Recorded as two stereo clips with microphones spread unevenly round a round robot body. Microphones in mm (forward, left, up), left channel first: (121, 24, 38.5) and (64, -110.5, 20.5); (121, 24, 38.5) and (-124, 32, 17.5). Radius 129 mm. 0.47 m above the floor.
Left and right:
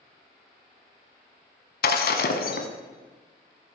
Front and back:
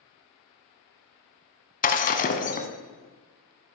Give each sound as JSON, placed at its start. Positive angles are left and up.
{"t": 1.8, "sound": "breaking glass", "azimuth_deg": 55, "distance_m": 1.3}